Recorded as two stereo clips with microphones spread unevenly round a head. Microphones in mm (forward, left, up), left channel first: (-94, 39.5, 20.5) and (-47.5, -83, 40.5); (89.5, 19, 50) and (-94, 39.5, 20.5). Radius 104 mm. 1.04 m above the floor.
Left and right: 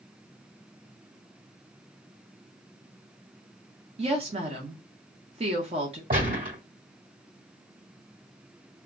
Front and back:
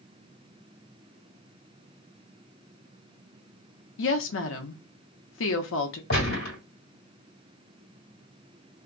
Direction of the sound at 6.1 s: 30° right.